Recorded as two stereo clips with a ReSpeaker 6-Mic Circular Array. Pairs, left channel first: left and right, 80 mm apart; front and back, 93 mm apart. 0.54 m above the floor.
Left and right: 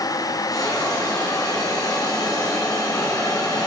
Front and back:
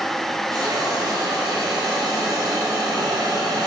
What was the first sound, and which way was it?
A hiss, 135° left.